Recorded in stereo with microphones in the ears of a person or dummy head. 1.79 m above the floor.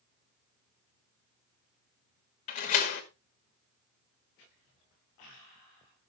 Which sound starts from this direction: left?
A door slam, at 2.5 s.